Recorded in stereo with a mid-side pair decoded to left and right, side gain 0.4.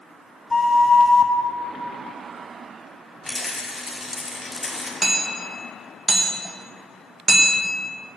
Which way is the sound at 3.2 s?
10° left.